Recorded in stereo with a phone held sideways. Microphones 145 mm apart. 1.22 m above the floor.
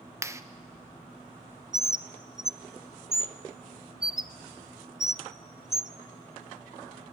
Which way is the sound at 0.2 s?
20° right (ahead or behind).